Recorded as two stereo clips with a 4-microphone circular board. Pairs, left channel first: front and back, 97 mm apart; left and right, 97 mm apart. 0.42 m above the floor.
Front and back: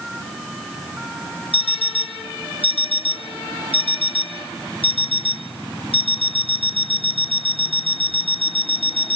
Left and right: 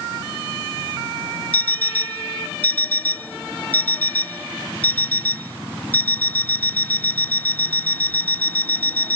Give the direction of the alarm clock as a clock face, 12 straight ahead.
11 o'clock.